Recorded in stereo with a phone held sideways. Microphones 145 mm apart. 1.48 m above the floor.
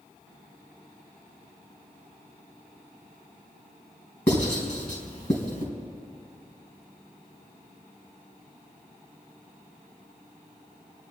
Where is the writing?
55° left (ahead or behind), 4.5 m.